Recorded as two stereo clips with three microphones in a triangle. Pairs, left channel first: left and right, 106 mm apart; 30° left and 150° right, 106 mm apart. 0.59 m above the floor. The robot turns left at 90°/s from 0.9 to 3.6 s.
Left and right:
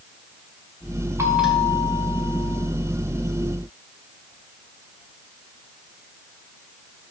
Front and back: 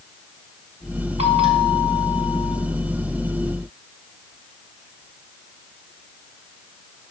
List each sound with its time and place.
1.2 s a bell: 150° right, 3 m; by 2.6 s 85° left, 3 m